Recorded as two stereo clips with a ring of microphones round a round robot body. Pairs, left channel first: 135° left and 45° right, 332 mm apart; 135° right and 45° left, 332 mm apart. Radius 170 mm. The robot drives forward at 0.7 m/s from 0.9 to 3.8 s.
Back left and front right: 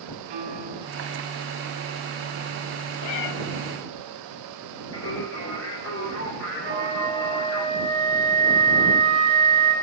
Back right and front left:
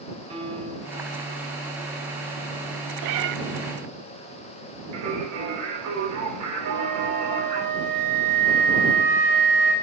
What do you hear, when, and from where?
0.3 s a piano: 30° right, 1.6 m
3.0 s a cat meowing: 85° left, 0.5 m; by 3.3 s 110° left, 0.6 m
4.9 s singing: 85° left, 2.5 m
6.6 s a flute: 80° left, 5.5 m